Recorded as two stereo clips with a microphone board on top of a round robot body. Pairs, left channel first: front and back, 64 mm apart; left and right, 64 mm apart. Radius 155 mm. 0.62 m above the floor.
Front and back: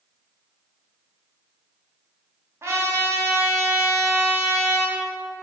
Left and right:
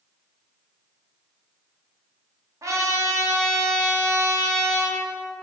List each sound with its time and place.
2.6 s a trumpet: 130° right, 2 m